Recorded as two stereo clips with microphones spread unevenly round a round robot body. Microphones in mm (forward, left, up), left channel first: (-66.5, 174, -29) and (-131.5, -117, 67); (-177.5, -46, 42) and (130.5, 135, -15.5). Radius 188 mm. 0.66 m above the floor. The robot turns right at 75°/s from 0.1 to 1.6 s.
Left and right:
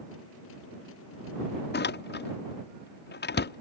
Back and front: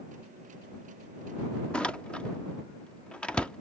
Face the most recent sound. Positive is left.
turn(degrees=120)